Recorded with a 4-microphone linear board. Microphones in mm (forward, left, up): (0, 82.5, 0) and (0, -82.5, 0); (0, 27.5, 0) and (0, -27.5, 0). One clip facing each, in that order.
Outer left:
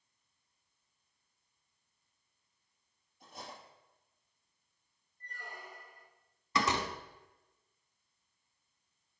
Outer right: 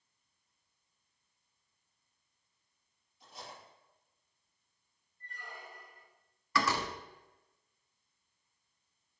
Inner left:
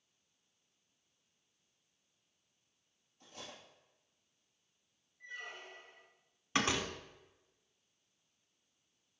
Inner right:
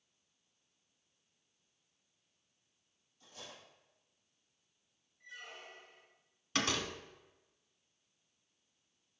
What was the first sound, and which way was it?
Cutlery clinking, 50° left (ahead or behind).